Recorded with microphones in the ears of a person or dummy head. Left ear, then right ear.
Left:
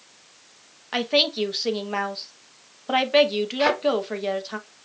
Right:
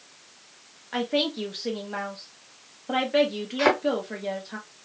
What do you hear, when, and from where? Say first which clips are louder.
0.9 s a woman speaking: left 5 dB; 35° left (ahead or behind), 0.7 m
3.6 s a thud: even; 55° right (ahead or behind), 2.5 m